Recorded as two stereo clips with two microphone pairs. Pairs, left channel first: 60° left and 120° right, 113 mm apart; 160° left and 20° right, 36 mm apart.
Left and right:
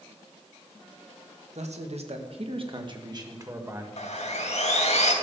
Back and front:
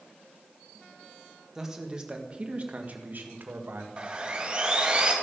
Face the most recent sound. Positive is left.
turn(degrees=40)